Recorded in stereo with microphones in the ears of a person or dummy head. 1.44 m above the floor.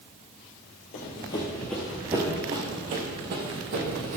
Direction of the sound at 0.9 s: 30° left (ahead or behind).